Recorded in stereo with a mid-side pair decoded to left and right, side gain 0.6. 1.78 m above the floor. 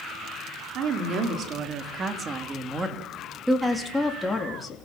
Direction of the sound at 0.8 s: 55° right.